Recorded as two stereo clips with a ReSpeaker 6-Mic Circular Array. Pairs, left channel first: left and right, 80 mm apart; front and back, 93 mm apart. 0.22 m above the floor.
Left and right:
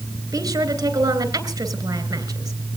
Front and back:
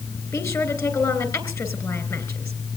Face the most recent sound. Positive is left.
turn(degrees=-50)